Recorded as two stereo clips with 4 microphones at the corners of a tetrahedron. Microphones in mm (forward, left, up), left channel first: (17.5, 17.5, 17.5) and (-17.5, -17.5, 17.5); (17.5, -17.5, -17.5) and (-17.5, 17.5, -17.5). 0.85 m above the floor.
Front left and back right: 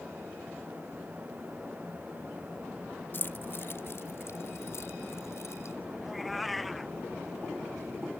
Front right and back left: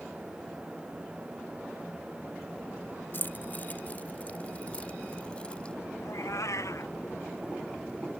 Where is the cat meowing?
45° right.